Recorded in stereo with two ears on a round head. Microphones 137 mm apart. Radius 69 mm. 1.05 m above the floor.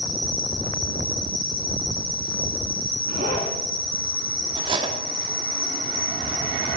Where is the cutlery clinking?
30° right (ahead or behind), 1.1 m.